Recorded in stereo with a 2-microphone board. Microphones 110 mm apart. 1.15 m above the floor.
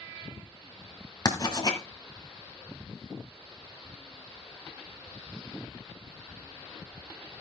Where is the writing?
40° left (ahead or behind), 1.4 m.